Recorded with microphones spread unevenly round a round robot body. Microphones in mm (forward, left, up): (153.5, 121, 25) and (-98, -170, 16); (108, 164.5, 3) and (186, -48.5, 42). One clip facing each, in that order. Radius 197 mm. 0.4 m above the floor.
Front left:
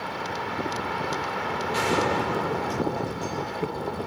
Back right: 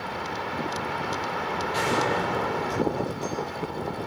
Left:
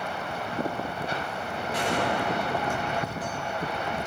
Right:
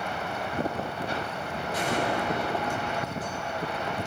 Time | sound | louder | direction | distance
1.7 | a gunshot | front left 2 dB, left 1 dB | 90° left | 9.5 m